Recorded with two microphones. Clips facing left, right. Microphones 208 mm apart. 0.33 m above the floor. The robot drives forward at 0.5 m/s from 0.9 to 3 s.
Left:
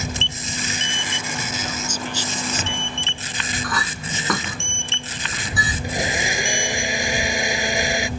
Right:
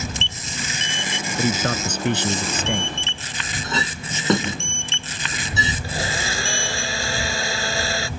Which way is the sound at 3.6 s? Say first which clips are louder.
Right 1 dB; 25° right (ahead or behind).